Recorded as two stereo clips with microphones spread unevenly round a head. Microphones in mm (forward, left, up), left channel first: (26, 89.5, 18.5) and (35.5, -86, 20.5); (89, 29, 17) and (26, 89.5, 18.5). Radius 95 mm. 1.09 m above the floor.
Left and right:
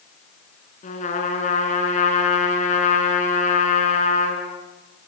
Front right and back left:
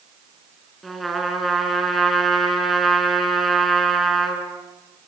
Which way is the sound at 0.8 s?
45° left.